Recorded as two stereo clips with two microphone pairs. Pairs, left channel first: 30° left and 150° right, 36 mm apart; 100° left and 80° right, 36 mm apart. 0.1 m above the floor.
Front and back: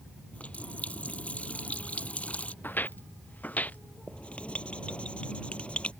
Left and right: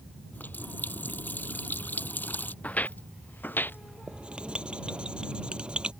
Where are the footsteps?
50° left; by 3.8 s 70° left.